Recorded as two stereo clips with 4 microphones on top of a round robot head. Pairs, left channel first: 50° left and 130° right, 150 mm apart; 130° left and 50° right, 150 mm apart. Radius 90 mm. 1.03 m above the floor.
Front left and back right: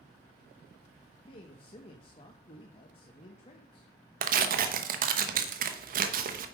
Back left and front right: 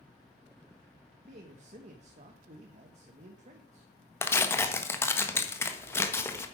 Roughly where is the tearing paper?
Behind right.